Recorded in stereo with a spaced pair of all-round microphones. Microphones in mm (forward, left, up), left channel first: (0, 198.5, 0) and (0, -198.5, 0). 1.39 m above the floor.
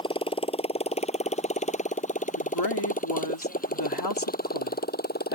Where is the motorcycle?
10° left (ahead or behind); by 5.3 s 25° left (ahead or behind).